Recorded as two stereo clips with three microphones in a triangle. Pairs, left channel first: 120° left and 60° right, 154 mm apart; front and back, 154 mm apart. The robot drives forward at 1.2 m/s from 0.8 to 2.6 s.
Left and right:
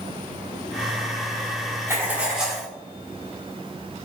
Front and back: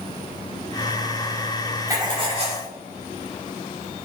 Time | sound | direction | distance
1.9 | writing | 125° right | 1.6 m